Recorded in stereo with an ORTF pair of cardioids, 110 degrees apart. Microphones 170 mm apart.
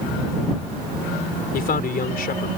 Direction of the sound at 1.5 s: 60° left.